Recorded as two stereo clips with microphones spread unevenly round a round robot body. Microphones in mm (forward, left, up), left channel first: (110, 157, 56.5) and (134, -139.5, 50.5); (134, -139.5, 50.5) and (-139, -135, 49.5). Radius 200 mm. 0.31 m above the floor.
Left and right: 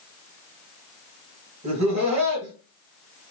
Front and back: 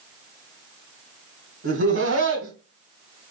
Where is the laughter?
155° right, 2 m.